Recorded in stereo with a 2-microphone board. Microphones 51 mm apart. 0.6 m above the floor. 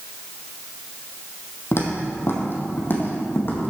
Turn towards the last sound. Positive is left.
turn(degrees=40)  # may be behind; listen again after turning